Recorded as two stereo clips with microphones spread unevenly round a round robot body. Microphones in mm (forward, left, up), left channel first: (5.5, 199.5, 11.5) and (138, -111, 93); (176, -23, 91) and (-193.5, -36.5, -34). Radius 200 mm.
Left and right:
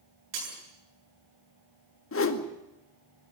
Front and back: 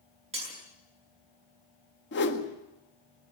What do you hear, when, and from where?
0.3 s breaking glass: 105° right, 8.5 m
2.1 s a whoosh: 70° left, 1.9 m